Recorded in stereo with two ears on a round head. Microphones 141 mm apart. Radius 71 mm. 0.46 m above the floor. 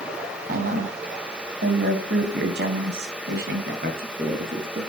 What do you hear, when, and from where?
0.5 s a woman speaking: 60° right (ahead or behind), 3 m